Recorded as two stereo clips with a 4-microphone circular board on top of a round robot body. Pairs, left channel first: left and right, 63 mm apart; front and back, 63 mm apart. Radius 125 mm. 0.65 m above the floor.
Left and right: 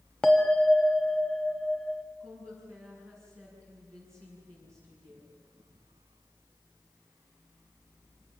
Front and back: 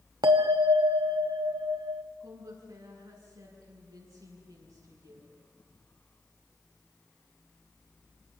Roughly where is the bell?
Behind.